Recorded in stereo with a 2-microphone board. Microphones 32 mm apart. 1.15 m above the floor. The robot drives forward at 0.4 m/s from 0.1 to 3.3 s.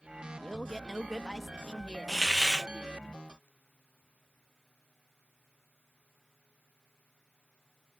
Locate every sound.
0.4 s a man speaking: 5° left (ahead or behind); by 3.1 s centre (ahead or behind)
2.1 s a hiss: 5° right (ahead or behind); by 2.7 s 10° right (ahead or behind)